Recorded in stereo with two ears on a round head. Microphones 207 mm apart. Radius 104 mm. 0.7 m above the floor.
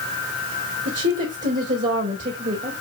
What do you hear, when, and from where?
0.8 s a woman speaking: 45° right (ahead or behind), 2.5 m